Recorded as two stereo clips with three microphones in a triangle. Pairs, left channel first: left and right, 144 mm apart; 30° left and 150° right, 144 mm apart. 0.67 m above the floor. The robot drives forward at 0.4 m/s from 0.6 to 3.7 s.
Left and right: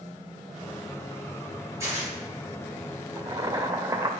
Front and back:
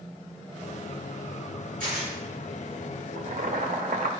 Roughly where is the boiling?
Behind right.